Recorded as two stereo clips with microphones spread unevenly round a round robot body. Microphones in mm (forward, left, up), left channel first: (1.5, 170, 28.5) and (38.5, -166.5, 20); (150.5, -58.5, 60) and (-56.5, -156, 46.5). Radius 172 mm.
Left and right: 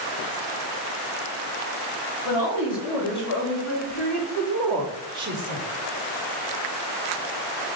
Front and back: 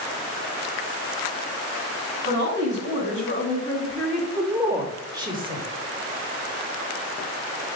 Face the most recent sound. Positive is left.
turn(degrees=-115)